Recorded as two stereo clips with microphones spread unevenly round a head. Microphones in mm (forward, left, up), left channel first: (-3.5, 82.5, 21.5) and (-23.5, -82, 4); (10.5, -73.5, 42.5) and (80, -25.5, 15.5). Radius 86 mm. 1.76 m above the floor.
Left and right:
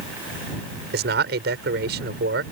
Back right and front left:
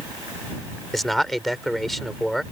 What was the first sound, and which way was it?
A man speaking, 60° right.